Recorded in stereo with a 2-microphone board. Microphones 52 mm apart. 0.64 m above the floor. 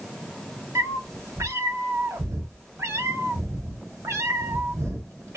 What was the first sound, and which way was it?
A cat meowing, 65° right (ahead or behind).